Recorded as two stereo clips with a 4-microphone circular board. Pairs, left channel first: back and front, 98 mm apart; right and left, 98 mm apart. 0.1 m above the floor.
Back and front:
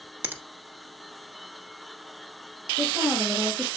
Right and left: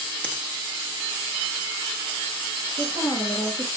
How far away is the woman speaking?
About 2 m.